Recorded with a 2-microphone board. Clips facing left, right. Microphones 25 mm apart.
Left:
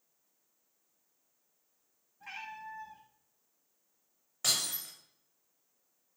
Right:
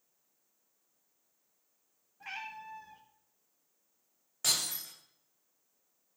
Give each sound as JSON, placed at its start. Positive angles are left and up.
{"t": 2.2, "sound": "a cat meowing", "side_deg": -65, "distance_m": 4.0}
{"t": 4.4, "sound": "breaking glass", "side_deg": 0, "distance_m": 6.5}